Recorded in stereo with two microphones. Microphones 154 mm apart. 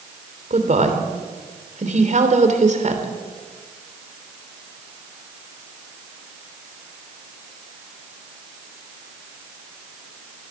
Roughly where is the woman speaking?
Right.